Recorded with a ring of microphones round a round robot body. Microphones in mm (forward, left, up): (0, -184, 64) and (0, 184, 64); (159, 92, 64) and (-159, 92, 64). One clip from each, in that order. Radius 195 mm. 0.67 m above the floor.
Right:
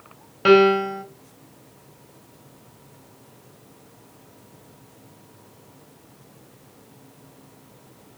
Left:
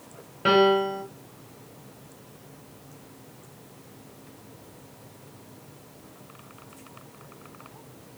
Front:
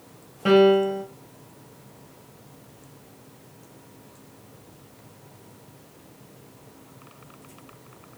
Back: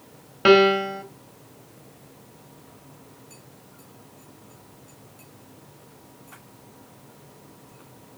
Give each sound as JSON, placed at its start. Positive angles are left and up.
{"t": 0.5, "sound": "a piano", "azimuth_deg": -160, "distance_m": 0.6}